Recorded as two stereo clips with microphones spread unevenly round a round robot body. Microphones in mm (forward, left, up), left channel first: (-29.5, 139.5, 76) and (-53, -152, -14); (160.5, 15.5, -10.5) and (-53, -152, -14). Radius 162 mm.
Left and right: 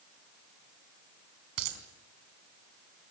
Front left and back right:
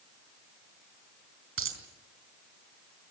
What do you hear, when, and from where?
1.6 s a dropped coin: 105° right, 4.5 m